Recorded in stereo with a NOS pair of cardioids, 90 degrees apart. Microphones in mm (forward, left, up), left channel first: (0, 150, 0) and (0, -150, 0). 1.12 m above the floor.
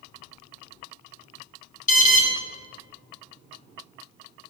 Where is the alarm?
25° left, 0.6 m.